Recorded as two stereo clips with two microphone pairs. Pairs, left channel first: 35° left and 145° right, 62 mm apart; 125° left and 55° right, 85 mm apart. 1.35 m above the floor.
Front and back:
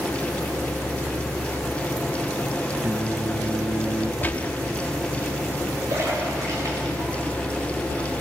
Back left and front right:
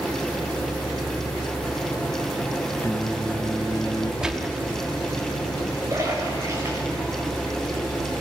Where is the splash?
115° right, 7.5 m.